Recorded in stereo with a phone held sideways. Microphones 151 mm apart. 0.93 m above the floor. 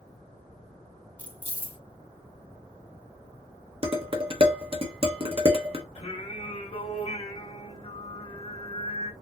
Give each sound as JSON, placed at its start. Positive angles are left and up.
{"t": 1.2, "sound": "keys jangling", "side_deg": 10, "distance_m": 1.3}
{"t": 3.8, "sound": "dishes clattering", "side_deg": -40, "distance_m": 0.8}
{"t": 6.0, "sound": "singing", "side_deg": 45, "distance_m": 2.0}